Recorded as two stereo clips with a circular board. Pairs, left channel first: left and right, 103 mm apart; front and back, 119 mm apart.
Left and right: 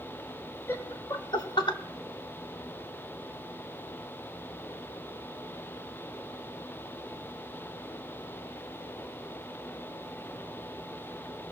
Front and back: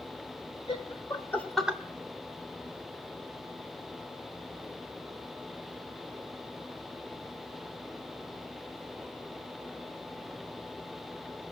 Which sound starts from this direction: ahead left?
Laughter, at 0.7 s.